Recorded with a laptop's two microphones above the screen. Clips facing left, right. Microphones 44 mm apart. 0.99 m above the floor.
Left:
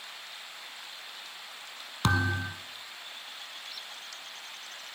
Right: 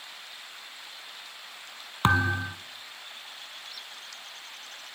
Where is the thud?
30° right (ahead or behind), 1.3 m.